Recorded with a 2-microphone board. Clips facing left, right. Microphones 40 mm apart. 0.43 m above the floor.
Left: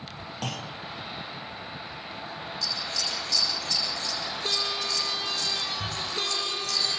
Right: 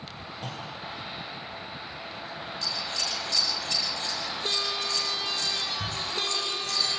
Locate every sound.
0.4 s a clunk: 75° left (ahead or behind), 4 m
2.6 s scissors: 30° right (ahead or behind), 10 m